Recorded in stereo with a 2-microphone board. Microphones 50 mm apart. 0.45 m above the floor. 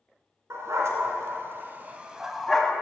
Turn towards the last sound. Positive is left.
turn(degrees=20)  # may be behind; listen again after turning